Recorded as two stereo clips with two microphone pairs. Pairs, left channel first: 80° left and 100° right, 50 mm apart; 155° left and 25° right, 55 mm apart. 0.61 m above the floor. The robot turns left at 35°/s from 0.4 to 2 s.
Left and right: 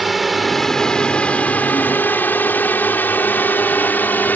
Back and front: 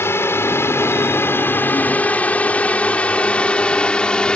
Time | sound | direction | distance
0.0 | a drone | 170° left | ?